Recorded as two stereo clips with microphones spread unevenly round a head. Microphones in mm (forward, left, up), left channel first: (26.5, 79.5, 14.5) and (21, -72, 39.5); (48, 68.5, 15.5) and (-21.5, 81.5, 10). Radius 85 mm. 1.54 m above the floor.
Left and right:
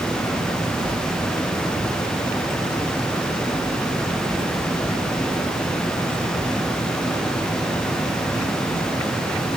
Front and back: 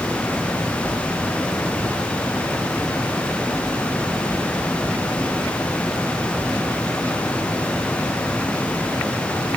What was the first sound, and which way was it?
Only background noise.